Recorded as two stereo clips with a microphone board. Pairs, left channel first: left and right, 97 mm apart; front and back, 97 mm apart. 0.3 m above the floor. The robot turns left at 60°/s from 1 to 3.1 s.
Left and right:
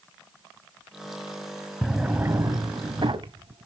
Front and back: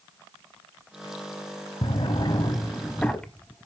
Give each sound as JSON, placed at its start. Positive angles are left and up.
{"t": 1.8, "sound": "a drawer", "azimuth_deg": 0, "distance_m": 0.9}